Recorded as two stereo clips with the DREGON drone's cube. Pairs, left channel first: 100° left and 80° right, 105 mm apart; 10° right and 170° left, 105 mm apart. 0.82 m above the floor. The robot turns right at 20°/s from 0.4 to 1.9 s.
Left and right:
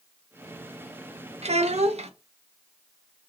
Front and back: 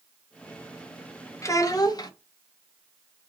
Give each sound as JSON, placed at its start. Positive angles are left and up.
{"t": 1.4, "sound": "a child speaking", "azimuth_deg": -75, "distance_m": 0.5}